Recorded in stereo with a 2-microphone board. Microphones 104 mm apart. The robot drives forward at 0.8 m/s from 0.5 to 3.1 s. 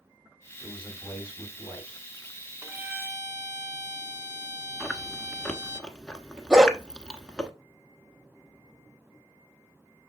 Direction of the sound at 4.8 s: 10° left (ahead or behind).